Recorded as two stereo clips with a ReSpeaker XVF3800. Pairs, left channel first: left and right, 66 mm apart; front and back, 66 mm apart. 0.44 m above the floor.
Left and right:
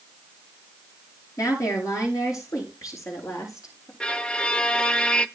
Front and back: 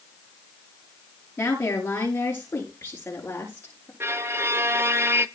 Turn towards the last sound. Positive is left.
turn(degrees=155)